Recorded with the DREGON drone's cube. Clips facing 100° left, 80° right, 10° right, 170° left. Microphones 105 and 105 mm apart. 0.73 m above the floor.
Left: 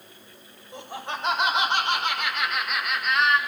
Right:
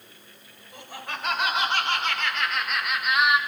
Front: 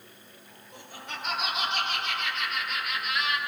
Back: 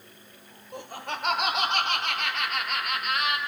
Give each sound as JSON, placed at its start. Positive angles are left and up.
{"t": 0.7, "sound": "laughter", "azimuth_deg": 160, "distance_m": 2.5}